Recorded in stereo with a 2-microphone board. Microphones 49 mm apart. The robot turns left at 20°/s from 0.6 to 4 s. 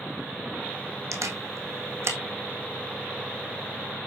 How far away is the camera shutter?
About 1.8 m.